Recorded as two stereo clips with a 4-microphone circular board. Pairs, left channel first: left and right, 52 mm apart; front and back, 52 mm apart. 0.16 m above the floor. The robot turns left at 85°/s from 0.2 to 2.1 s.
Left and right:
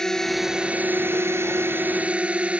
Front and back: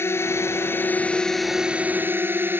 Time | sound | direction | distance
0.0 | a drone | 15° left | ?